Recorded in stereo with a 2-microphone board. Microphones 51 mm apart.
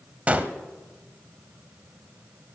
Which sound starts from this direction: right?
A gunshot, at 0.3 s.